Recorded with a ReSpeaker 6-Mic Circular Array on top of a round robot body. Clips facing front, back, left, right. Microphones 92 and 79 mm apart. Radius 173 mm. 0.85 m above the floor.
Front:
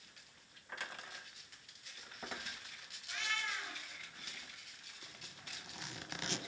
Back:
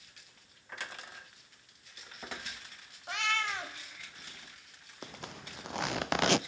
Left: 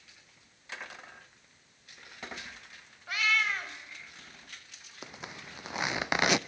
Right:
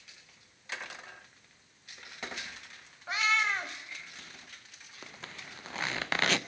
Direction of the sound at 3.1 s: 155° right.